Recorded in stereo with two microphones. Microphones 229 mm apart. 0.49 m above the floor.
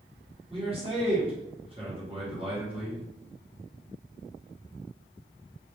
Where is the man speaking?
25° right (ahead or behind), 1.0 m.